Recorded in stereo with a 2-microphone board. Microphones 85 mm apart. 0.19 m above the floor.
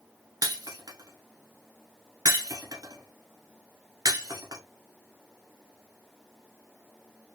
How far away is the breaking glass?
About 1.1 m.